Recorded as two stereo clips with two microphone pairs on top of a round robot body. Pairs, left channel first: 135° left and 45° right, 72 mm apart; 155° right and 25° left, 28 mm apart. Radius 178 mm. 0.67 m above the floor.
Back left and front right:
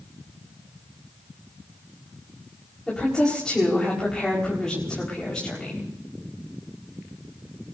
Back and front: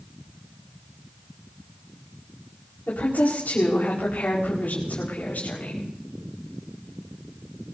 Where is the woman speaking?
145° right, 5 m.